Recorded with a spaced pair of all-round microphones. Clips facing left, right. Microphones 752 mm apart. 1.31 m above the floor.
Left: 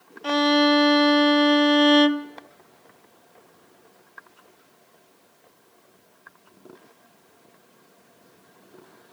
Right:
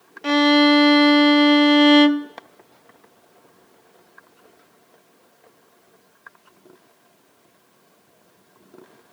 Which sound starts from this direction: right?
A violin, at 0.2 s.